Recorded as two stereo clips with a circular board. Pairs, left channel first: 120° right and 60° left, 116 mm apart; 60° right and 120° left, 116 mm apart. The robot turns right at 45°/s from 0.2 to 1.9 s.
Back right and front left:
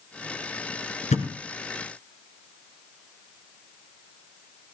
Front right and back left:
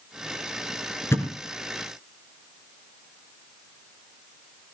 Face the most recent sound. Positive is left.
turn(degrees=-95)